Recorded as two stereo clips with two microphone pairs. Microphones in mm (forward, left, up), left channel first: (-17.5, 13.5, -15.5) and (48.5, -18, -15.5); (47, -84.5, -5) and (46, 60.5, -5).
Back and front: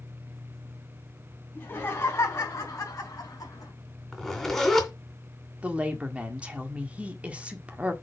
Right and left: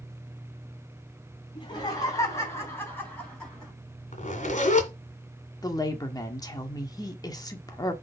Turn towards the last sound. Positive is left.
turn(degrees=-70)